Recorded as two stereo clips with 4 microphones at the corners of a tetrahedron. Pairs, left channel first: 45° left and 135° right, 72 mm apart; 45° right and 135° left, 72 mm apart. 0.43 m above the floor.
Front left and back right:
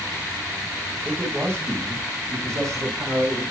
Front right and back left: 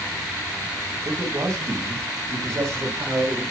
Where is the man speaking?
170° left, 3.5 m; by 3.4 s 170° right, 5.5 m.